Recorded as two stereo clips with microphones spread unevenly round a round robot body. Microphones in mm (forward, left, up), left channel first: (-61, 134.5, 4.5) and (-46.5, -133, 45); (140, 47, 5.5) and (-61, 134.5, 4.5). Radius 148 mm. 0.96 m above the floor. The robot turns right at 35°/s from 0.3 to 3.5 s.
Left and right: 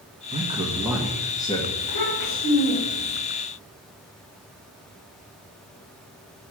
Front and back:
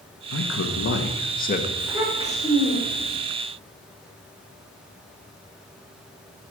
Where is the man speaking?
15° right, 1.6 m; by 1.7 s 30° left, 1.6 m.